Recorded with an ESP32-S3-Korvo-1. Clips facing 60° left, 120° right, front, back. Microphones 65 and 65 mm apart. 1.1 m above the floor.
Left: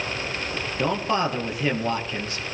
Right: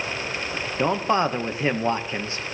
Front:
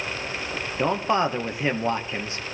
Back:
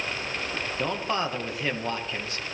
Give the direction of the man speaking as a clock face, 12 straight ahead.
2 o'clock.